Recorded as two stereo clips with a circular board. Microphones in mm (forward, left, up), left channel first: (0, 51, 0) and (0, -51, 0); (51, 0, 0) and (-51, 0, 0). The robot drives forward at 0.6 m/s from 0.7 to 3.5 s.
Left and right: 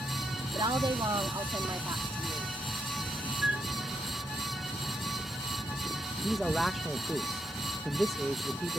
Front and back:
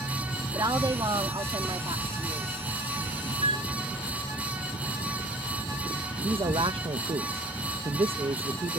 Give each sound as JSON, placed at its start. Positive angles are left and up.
{"t": 0.6, "sound": "a woman speaking", "azimuth_deg": -130}
{"t": 3.4, "sound": "a flute", "azimuth_deg": -170}
{"t": 6.2, "sound": "a man speaking", "azimuth_deg": 180}